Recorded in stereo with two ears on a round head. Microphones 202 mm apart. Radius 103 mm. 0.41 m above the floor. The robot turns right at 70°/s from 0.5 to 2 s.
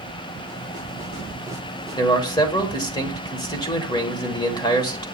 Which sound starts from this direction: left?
A man speaking, at 1.9 s.